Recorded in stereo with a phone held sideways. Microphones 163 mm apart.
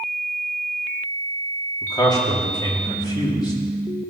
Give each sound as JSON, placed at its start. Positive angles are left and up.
{"t": 1.8, "sound": "a man speaking", "side_deg": 25, "distance_m": 2.5}